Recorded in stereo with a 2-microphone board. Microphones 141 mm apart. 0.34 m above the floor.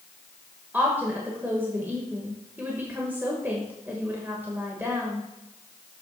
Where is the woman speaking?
15° right (ahead or behind), 1.4 m.